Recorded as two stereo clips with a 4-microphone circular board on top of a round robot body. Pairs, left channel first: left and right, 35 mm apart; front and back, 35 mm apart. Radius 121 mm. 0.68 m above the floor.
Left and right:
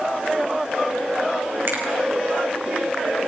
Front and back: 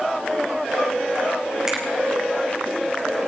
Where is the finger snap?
105° right, 3 m.